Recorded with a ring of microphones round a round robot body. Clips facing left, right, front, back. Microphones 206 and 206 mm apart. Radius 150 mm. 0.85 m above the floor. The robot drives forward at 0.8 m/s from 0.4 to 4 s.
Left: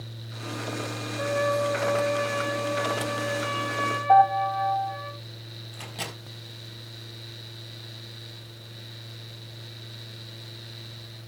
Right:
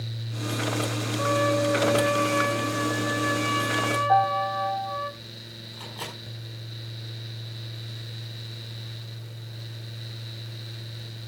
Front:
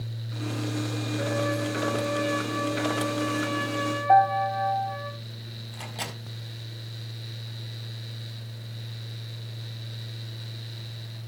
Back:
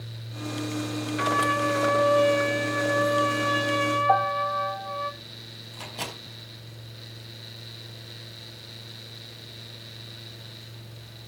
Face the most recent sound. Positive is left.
turn(degrees=85)